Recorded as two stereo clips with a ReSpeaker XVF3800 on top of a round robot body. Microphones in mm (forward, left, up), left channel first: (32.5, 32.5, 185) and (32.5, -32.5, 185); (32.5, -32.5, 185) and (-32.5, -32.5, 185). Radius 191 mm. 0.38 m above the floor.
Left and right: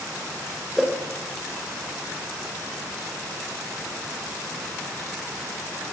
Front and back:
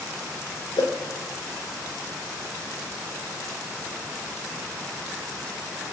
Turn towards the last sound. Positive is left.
turn(degrees=0)